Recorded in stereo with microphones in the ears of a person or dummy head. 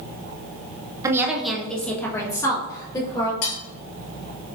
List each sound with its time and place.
1.0 s a woman speaking: 20° right (ahead or behind), 0.7 m; by 3.3 s 25° left (ahead or behind), 1.9 m
3.4 s cutlery clinking: 65° left (ahead or behind), 1.5 m